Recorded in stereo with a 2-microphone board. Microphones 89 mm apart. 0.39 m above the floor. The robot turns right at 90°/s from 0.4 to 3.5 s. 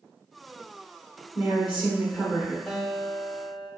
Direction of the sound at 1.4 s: 15° right (ahead or behind).